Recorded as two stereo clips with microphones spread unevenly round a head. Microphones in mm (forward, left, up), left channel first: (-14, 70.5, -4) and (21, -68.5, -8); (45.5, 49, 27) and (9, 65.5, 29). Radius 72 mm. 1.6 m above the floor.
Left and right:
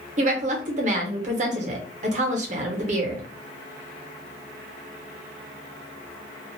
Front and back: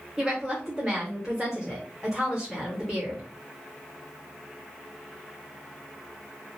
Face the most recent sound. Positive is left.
turn(degrees=-115)